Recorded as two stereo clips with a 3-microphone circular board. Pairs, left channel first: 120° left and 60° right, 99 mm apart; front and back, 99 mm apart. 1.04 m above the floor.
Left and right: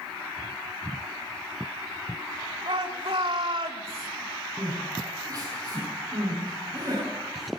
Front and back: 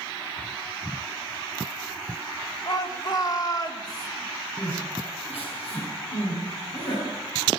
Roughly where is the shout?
Ahead right.